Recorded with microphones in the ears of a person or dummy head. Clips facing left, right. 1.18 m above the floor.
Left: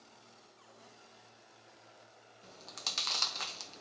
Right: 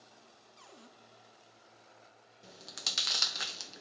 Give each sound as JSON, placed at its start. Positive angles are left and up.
{"t": 0.6, "sound": "a cupboard door", "side_deg": -55, "distance_m": 1.8}
{"t": 2.4, "sound": "chewing", "side_deg": -10, "distance_m": 0.5}